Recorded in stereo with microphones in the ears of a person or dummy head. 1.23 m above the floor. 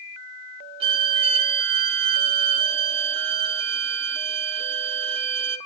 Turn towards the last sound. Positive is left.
turn(degrees=-25)  # may be behind; listen again after turning